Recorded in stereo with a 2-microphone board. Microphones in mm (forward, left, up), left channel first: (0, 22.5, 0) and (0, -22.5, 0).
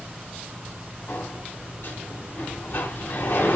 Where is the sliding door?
60° left (ahead or behind), 3 m.